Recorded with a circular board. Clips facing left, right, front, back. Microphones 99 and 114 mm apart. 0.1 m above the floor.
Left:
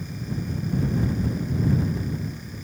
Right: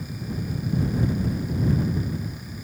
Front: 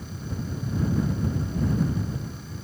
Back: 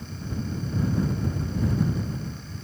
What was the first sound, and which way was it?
Only background noise.